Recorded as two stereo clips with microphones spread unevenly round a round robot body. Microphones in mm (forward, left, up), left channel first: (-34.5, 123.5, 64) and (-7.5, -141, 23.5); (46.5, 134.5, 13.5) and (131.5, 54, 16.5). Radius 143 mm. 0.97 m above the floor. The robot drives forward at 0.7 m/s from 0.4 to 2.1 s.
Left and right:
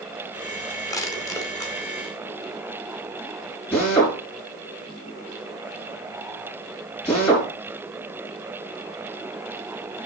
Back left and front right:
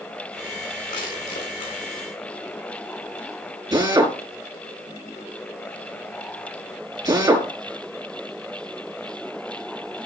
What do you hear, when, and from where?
0.9 s crushing: 175° left, 2 m
3.7 s a drill: 10° left, 5 m